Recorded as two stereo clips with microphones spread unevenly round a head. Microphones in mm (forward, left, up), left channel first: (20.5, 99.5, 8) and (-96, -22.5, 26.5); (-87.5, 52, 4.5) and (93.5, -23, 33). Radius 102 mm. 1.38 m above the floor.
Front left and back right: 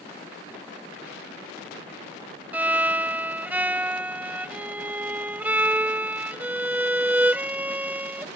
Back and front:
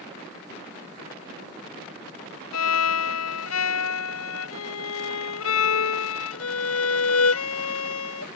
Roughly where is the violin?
Behind left.